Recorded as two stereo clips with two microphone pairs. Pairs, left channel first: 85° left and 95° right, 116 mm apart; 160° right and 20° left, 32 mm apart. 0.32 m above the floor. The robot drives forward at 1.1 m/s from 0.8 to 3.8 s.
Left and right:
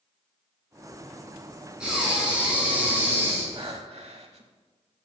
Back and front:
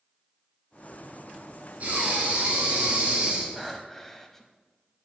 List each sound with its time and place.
1.8 s breathing: 15° right, 3 m; by 3.5 s 35° right, 1.6 m
3.6 s breathing: 60° right, 0.7 m; by 4.5 s 85° right, 0.7 m